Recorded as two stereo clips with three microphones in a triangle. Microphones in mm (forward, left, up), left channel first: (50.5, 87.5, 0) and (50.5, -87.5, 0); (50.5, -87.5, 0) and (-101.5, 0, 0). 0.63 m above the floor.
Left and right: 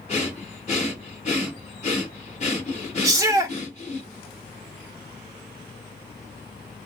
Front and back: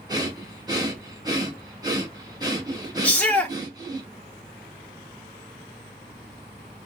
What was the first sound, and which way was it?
Breathing, 100° left.